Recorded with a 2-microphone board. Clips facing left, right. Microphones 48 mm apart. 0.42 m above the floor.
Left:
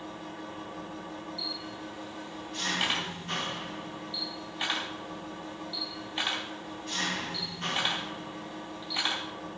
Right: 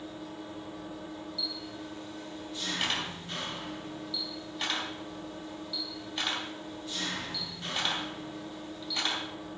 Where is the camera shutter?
15° left (ahead or behind), 4 m.